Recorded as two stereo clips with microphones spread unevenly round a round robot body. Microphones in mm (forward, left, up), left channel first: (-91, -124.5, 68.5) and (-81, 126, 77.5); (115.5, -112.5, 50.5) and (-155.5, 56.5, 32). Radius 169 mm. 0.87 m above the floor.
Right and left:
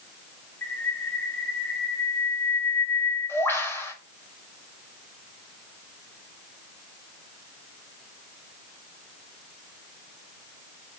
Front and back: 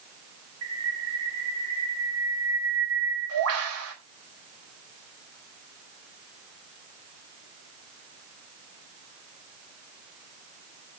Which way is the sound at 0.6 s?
175° right.